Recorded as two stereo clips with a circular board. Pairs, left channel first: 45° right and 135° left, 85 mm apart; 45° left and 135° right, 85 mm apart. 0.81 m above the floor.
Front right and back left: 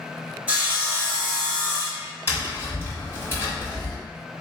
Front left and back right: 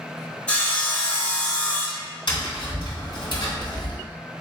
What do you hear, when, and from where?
0.5 s sawing: 95° left, 1.1 m
2.3 s tapping: 15° left, 1.6 m